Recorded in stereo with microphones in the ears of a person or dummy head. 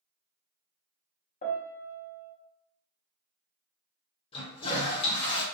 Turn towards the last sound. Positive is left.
turn(degrees=30)  # may be behind; listen again after turning